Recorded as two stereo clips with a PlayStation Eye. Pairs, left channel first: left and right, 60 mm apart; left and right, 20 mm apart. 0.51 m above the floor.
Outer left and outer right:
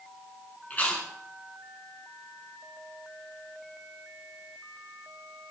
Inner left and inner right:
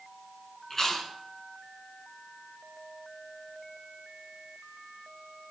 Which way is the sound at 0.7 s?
25° left (ahead or behind).